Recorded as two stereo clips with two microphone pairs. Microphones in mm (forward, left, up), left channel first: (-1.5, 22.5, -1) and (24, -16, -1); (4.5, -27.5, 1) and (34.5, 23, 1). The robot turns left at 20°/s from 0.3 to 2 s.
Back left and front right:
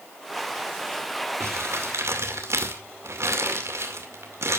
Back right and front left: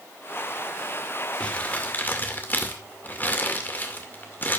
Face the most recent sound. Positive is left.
turn(degrees=-65)